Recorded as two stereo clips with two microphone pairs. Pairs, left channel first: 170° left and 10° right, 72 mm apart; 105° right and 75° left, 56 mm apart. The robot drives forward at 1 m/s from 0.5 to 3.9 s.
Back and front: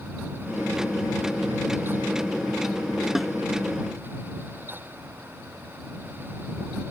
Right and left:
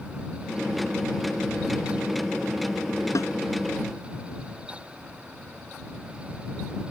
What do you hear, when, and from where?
3.1 s a snare drum: 95° right; by 3.3 s 105° right